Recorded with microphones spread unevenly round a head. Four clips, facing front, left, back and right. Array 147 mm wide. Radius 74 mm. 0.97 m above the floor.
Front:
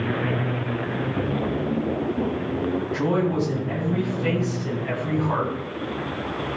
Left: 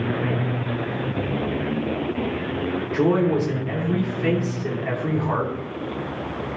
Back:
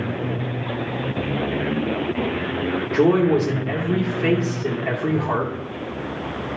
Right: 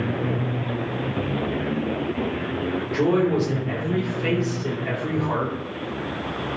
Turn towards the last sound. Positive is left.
turn(degrees=175)